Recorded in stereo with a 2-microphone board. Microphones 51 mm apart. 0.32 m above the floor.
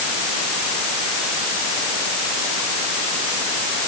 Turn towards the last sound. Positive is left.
No sound to turn to.